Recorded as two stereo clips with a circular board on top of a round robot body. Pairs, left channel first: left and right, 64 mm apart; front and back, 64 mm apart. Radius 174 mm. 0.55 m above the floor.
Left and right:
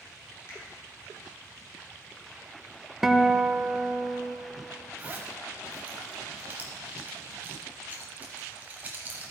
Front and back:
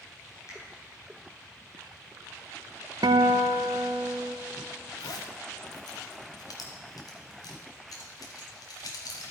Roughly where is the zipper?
Ahead right.